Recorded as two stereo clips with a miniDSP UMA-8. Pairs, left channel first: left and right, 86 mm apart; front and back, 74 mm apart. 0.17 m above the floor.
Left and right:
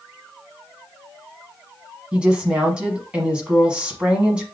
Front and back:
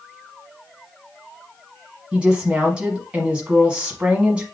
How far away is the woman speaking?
About 1.1 m.